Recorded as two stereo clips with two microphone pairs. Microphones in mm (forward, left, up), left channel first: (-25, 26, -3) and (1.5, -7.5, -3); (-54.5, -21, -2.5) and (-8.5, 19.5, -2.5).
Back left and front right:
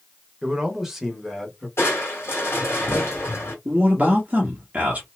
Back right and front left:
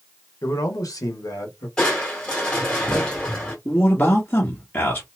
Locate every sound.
0.4 s a man speaking: 125° right, 1.1 m; by 1.7 s 150° right, 1.5 m
1.8 s crushing: 150° left, 1.7 m
3.6 s a man speaking: 90° right, 1.1 m